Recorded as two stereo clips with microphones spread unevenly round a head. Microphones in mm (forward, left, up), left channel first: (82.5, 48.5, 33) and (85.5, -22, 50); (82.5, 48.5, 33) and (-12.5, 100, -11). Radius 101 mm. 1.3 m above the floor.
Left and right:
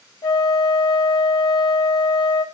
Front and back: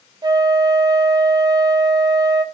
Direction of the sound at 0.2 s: 90° left.